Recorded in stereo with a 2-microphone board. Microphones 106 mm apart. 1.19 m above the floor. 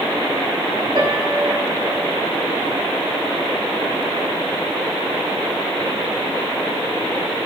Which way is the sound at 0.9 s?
55° right (ahead or behind).